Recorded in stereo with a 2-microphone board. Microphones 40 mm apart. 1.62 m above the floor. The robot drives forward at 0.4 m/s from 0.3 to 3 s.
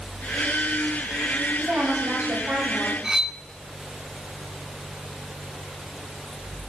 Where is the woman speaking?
75° right (ahead or behind), 8 m; by 2.9 s 80° right, 8 m.